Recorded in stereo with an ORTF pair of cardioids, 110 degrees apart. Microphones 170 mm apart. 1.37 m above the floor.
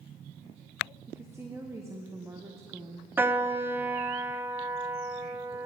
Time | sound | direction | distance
1.1 | a woman speaking | 15° right | 0.9 m
3.2 | a piano | 10° right | 0.7 m